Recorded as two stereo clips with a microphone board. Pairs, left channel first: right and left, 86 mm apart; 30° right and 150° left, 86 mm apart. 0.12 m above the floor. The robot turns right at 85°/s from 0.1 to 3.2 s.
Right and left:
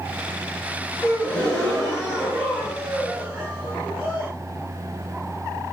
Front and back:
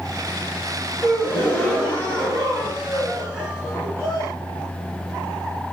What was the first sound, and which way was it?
A gasp, 70° right.